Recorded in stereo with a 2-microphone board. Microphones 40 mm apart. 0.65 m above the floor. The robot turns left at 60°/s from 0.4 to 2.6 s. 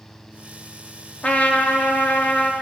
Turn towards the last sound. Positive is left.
turn(degrees=55)